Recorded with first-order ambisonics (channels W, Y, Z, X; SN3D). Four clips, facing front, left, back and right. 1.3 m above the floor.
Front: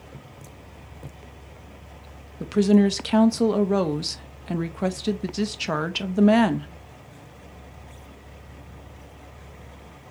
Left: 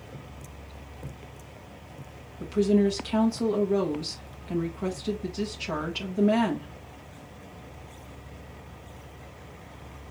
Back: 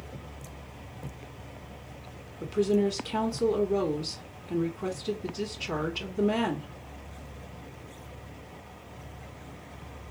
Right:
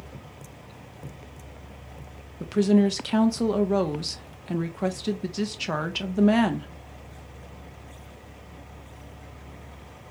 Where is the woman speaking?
25° right, 0.9 m.